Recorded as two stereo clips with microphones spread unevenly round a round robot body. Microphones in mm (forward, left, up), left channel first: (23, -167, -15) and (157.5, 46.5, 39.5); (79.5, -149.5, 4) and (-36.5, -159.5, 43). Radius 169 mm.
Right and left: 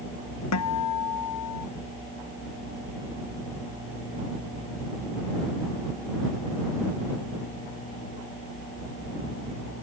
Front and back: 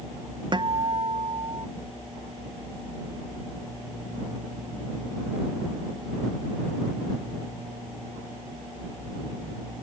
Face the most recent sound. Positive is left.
turn(degrees=-130)